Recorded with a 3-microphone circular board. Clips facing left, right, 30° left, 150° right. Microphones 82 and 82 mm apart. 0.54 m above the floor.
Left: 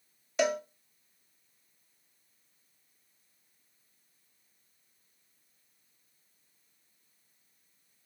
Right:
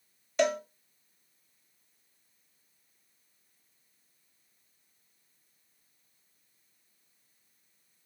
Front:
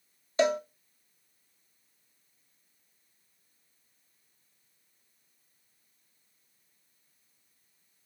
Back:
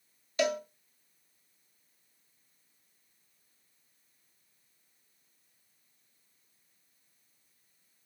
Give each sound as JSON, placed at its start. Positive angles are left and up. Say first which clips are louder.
{"t": 0.4, "sound": "a cowbell", "louder": "right 1 dB, front 4 dB", "azimuth_deg": 5, "distance_m": 0.7}